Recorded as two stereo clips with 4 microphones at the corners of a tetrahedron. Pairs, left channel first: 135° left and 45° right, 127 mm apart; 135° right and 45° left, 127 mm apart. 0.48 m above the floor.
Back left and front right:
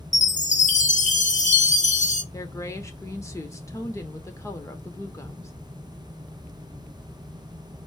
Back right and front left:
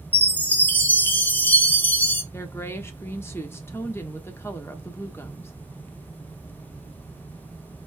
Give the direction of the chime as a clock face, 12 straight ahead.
7 o'clock.